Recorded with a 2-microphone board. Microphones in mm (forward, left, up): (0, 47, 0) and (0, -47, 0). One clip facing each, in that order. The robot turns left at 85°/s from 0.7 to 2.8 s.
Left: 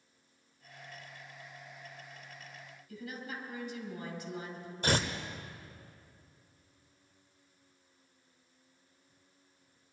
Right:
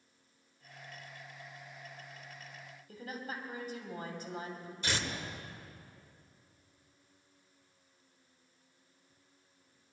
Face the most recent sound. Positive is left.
turn(degrees=50)  # may be behind; listen again after turning